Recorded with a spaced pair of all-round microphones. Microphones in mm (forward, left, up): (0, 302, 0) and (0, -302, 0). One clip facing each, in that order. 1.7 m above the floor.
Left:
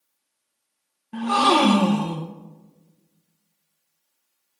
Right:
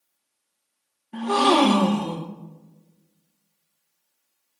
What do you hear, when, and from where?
1.1 s a gasp: 40° left (ahead or behind), 1.0 m